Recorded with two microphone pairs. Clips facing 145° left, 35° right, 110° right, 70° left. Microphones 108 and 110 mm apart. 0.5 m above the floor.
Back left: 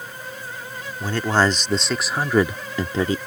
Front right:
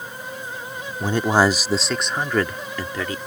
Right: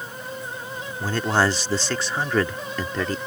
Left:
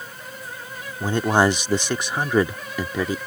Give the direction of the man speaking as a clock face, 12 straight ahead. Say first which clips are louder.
Front right 2 dB, left 3 dB; 12 o'clock.